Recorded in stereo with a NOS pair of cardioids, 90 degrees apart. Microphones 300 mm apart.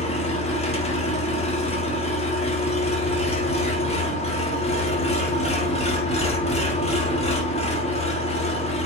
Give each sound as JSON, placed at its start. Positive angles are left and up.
{"t": 0.0, "sound": "an engine running", "azimuth_deg": 20, "distance_m": 1.2}